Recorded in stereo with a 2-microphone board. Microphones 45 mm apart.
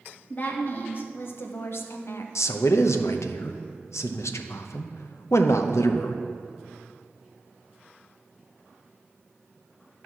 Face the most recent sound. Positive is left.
turn(degrees=85)